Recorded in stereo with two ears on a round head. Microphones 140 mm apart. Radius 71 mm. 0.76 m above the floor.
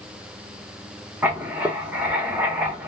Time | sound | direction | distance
1.2 | writing | 10° right (ahead or behind) | 1.0 m